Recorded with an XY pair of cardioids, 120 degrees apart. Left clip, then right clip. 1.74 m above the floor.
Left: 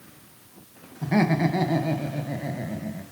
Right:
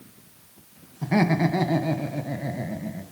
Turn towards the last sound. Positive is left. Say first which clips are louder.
# even
turn(degrees=-10)